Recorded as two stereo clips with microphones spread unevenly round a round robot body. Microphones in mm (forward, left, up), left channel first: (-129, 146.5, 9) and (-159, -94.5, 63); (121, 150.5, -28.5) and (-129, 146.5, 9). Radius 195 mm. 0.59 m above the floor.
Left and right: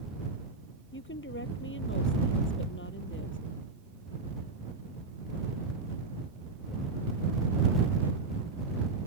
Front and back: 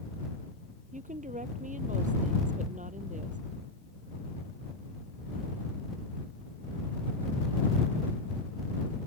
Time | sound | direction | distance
0.9 | a woman speaking | 120° left | ?